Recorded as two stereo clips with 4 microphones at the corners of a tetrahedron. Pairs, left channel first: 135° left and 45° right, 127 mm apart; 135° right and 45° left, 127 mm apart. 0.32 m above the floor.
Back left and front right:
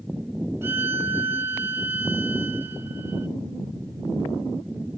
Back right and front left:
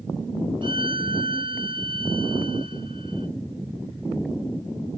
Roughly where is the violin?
Ahead.